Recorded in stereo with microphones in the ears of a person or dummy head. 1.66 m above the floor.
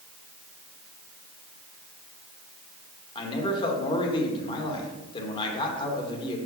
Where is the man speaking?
30° left (ahead or behind), 1.9 m.